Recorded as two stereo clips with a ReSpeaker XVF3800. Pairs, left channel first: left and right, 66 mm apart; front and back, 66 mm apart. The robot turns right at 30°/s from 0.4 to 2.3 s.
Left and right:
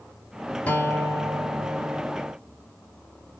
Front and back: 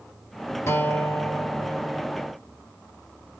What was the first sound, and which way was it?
A guitar, 30° left.